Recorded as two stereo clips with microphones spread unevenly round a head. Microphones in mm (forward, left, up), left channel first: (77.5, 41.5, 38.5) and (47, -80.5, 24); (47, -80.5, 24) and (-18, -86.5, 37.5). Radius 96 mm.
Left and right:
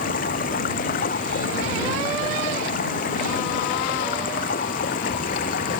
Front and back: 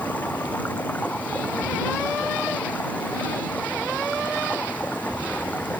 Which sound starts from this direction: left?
Running water, at 0.0 s.